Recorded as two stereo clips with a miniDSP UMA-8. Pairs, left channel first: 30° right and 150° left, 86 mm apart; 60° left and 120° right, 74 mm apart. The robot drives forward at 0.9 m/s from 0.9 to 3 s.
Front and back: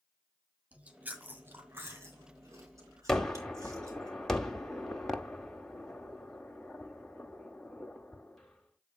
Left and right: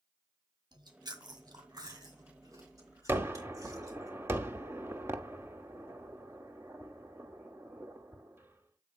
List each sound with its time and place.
0.7 s chewing: 140° right, 1.7 m; by 4.1 s 160° right, 3.5 m
3.1 s a gunshot: 110° right, 1.0 m